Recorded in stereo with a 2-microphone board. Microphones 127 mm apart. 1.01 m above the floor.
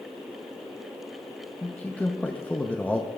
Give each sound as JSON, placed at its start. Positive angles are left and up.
{"t": 1.6, "sound": "a man speaking", "side_deg": 10, "distance_m": 0.7}